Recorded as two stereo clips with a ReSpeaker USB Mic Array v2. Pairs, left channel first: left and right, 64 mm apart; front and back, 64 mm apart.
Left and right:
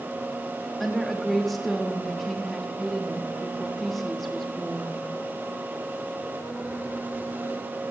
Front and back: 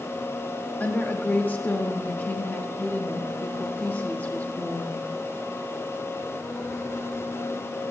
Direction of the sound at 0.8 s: 10° left.